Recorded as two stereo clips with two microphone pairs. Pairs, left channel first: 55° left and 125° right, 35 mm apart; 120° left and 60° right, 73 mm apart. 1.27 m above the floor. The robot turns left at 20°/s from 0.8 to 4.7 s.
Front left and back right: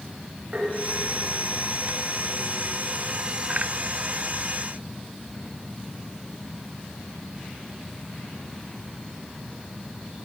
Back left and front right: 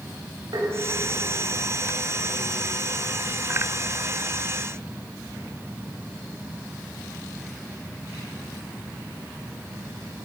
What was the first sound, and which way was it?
Tapping, 60° right.